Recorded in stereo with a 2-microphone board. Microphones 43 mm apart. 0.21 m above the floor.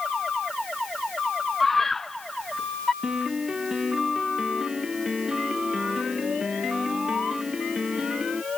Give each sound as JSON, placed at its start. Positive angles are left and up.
{"t": 1.6, "sound": "a scream", "side_deg": 10}
{"t": 3.0, "sound": "a piano", "side_deg": -15}